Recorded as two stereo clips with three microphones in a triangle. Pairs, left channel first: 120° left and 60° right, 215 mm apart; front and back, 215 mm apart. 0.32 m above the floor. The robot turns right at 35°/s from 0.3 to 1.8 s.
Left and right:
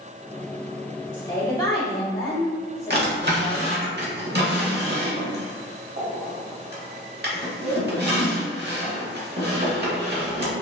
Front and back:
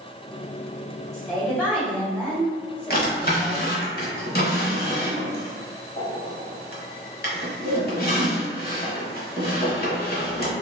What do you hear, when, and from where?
1.1 s a woman speaking: 55° left, 1.5 m; by 3.8 s 80° left, 1.5 m
2.9 s a drawer: 35° right, 0.8 m